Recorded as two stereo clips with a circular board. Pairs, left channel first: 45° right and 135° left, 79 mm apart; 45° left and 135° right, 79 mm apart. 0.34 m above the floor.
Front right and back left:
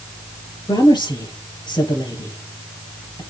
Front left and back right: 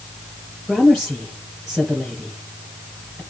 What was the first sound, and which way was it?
A woman speaking, 45° right.